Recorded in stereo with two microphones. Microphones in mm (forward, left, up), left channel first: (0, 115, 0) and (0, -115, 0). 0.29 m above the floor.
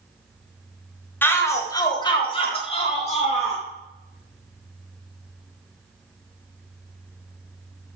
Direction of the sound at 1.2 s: 10° left (ahead or behind).